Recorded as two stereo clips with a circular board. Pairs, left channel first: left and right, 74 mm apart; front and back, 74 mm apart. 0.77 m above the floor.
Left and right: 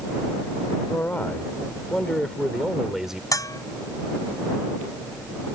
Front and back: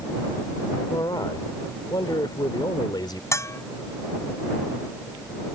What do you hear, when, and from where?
0.9 s a man speaking: 30° left; by 3.2 s 5° right
3.3 s a bell: 50° left